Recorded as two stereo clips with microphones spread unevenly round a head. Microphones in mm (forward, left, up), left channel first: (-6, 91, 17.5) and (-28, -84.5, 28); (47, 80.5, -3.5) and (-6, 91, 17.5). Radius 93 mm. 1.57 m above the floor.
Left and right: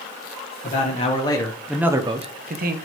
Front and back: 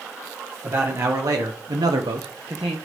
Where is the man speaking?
130° left, 1.9 m; by 2.8 s 135° right, 1.7 m.